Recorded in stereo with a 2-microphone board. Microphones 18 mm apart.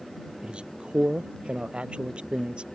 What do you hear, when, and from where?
0.4 s a man speaking: 80° right; by 2.7 s 85° right